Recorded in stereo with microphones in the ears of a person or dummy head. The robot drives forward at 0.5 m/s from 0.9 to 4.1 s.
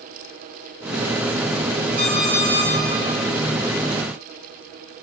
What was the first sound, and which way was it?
An alarm clock, 75° right (ahead or behind).